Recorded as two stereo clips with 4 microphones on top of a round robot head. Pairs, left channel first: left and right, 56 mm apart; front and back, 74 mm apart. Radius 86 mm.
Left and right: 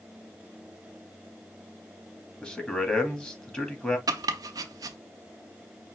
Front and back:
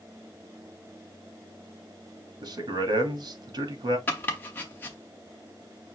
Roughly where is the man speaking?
Behind.